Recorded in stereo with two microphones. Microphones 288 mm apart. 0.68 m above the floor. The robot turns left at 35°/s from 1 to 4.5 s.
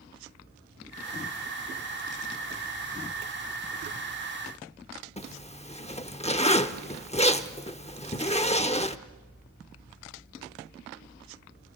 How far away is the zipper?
About 0.7 m.